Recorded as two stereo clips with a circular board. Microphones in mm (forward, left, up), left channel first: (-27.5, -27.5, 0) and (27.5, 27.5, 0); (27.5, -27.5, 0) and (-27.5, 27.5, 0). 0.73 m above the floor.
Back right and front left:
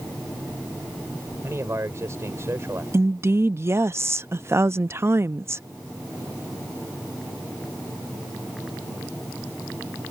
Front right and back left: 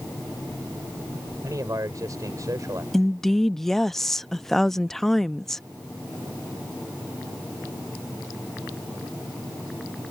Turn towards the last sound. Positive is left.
turn(degrees=40)